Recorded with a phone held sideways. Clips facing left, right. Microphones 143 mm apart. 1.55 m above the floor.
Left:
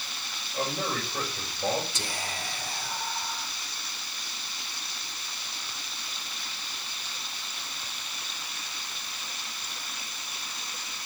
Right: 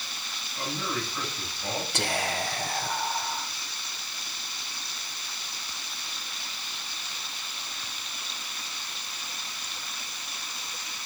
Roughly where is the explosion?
I don't hear an explosion.